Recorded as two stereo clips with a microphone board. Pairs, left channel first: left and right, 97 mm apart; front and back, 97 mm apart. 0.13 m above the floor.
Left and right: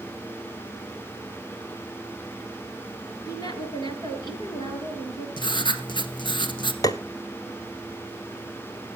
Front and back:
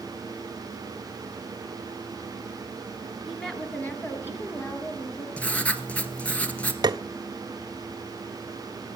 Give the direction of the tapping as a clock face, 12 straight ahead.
7 o'clock.